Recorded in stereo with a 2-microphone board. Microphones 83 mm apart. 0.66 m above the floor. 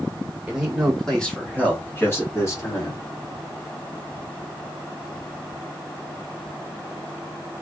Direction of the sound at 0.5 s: 10° right (ahead or behind).